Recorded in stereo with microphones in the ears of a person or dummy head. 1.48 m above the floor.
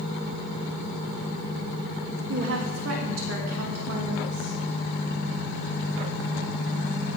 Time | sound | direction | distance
2.3 | a woman speaking | 70° right (ahead or behind) | 3 m